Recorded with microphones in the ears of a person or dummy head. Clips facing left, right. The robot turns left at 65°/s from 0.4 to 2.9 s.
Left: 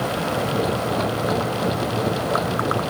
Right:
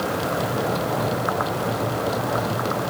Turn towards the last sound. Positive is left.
No sound to turn to.